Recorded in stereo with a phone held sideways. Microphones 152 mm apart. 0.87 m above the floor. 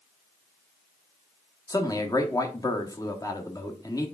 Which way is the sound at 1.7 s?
25° left (ahead or behind).